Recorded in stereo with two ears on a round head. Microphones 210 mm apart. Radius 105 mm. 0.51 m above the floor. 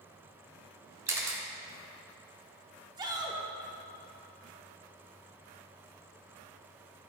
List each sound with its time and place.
1.1 s a camera shutter: 15° right (ahead or behind), 1.0 m
3.0 s a shout: 20° right (ahead or behind), 0.9 m